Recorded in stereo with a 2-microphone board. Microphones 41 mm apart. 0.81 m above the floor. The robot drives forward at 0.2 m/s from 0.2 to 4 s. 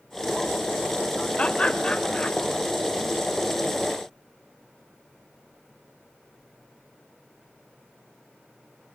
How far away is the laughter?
About 3 m.